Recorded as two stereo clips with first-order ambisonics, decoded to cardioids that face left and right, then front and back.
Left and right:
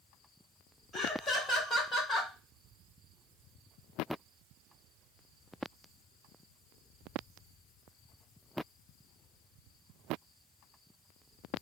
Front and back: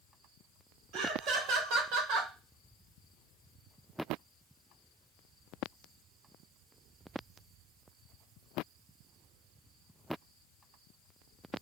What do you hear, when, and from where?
0.9 s laughter: 165° left, 1.7 m